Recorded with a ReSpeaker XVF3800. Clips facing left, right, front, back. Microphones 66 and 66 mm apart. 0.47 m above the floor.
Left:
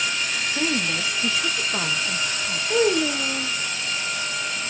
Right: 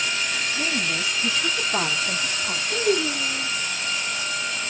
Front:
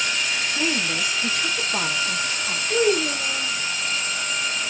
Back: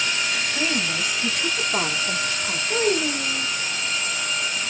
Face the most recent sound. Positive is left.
turn(degrees=95)